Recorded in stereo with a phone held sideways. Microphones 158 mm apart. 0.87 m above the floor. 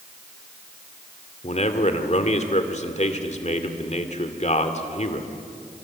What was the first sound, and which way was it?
A man speaking, 45° left (ahead or behind).